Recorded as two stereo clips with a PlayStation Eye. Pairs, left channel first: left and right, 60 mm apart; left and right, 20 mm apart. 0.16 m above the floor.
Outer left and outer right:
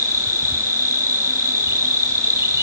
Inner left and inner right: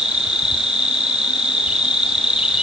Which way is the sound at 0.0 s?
50° right (ahead or behind).